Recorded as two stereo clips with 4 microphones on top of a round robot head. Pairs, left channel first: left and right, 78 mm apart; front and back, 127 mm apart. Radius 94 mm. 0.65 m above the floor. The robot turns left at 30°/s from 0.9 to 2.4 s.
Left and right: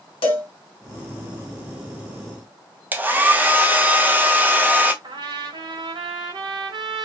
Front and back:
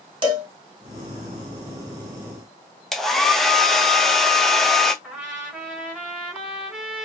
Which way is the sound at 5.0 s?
95° right.